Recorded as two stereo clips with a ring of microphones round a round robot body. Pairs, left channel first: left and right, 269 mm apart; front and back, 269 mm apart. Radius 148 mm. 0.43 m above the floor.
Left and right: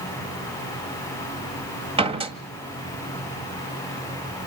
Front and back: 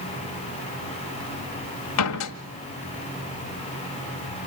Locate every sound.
2.0 s a door slam: 20° right, 1.9 m